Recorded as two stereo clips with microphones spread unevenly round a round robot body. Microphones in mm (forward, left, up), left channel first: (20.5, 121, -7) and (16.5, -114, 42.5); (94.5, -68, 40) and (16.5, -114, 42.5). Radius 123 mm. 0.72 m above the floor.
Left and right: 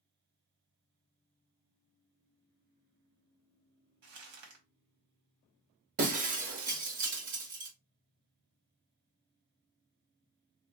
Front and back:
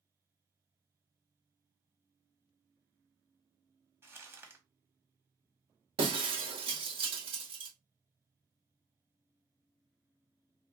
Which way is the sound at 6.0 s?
145° right.